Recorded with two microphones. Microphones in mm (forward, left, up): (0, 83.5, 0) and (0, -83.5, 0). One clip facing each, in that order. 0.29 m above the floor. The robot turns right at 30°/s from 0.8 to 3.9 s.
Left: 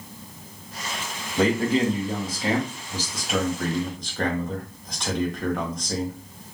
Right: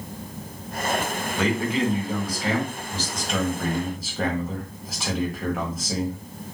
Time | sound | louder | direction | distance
1.4 | a man speaking | left 3 dB | 115° left | 1.4 m